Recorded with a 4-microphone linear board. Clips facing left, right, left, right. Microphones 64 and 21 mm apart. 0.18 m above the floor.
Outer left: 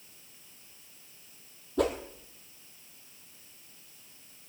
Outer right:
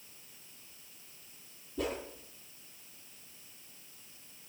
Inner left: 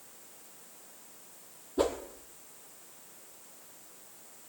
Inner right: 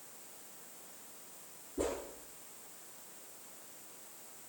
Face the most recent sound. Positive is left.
turn(degrees=80)